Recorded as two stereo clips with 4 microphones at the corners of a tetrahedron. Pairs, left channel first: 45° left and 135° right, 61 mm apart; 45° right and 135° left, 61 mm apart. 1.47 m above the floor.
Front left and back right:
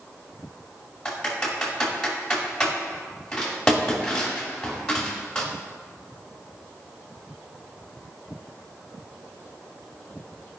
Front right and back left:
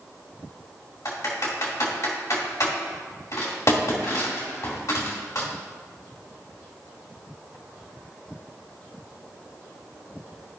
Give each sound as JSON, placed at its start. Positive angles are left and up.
{"t": 1.1, "sound": "typing on a keyboard", "azimuth_deg": -35, "distance_m": 2.0}